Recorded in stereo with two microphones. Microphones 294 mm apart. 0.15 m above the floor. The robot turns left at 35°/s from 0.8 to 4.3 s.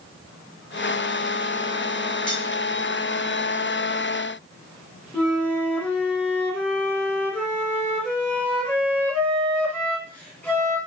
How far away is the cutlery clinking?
About 1.5 m.